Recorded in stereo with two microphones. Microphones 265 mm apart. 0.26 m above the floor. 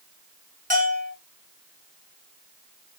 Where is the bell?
30° right (ahead or behind), 3.5 m.